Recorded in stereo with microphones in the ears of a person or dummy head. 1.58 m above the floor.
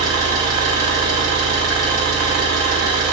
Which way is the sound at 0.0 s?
45° right (ahead or behind).